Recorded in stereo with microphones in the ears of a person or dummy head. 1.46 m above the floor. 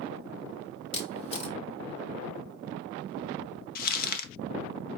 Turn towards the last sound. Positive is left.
turn(degrees=55)  # may be behind; listen again after turning